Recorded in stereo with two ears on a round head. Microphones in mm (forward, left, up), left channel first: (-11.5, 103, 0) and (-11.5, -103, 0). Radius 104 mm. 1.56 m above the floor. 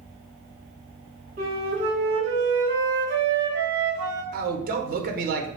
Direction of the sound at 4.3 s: 45° right (ahead or behind).